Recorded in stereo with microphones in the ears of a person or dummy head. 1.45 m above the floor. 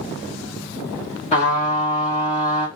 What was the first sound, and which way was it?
A trumpet, 40° left (ahead or behind).